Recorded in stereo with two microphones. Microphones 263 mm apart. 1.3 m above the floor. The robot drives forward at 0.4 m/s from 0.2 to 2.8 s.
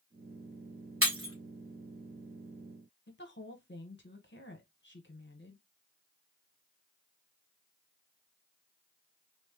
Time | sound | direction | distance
1.0 | breaking glass | 55° right (ahead or behind) | 1.4 m
3.1 | a woman speaking | 45° left (ahead or behind) | 0.8 m